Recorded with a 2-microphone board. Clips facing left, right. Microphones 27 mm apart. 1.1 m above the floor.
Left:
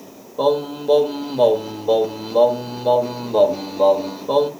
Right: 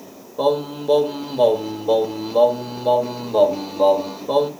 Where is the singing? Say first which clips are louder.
Left 1 dB; 5° left (ahead or behind), 0.8 m.